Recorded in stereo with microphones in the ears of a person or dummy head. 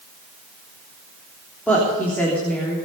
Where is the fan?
No fan in this recording.